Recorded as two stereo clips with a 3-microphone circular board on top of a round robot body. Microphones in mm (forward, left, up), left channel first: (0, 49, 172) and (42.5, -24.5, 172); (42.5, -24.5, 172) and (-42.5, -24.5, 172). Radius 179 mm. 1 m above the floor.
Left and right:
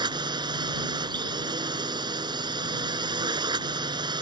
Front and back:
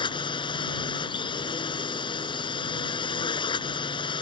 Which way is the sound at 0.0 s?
25° right.